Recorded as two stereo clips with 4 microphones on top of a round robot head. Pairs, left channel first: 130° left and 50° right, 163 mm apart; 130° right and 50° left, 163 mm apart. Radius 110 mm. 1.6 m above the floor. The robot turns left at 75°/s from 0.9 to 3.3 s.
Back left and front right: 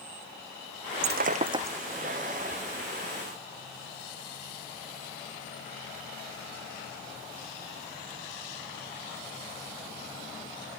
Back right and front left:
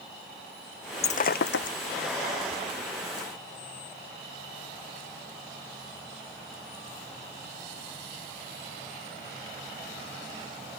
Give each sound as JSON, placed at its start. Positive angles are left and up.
{"t": 1.0, "sound": "breaking glass", "azimuth_deg": -75}